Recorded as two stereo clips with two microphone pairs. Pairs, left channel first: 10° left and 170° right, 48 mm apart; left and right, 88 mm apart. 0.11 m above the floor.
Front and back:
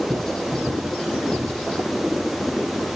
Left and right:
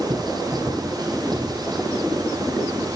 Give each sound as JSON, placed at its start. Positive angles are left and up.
{"t": 0.1, "sound": "writing", "azimuth_deg": -65, "distance_m": 4.0}